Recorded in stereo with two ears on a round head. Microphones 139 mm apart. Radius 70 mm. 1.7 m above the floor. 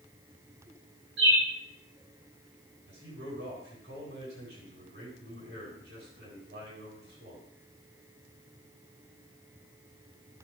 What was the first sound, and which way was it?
A bird, 85° right.